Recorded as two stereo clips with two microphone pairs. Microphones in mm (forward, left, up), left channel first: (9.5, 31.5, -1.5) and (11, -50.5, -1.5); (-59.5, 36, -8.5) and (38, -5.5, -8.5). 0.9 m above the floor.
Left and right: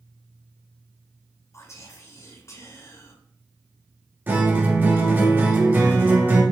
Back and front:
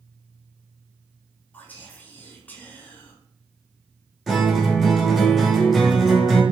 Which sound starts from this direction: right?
A guitar, at 4.3 s.